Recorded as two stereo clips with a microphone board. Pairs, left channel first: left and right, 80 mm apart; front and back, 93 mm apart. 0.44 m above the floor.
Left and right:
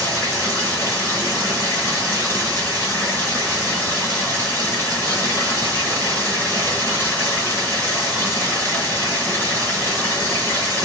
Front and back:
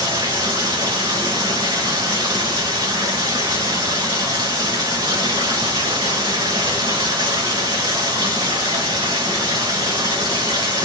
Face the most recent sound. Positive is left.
turn(degrees=150)